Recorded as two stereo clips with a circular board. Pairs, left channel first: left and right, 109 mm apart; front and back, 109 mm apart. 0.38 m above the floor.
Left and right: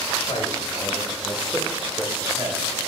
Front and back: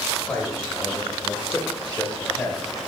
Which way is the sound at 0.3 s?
70° left.